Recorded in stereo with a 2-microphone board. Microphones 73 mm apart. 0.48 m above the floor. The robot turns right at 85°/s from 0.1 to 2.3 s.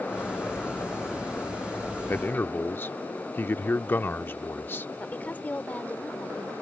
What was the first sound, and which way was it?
A man speaking, 25° left (ahead or behind).